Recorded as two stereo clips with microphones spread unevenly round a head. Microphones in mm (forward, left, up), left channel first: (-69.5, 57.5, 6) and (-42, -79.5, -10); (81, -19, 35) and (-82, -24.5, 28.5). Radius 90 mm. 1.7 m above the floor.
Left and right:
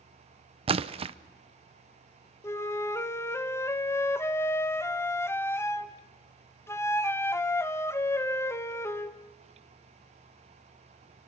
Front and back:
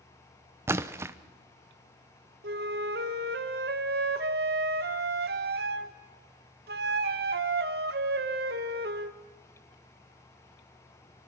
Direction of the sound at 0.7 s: 110° right.